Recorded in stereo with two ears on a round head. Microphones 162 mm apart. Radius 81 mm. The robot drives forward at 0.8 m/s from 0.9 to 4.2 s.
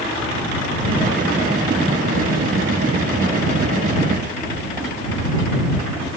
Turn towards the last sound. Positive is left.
No sound to turn to.